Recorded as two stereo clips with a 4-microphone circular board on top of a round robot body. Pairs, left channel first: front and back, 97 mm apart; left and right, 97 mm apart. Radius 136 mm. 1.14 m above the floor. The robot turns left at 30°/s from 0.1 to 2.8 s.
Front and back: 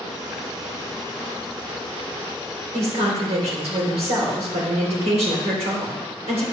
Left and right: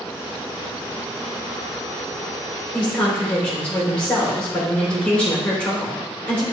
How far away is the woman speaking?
About 3.5 m.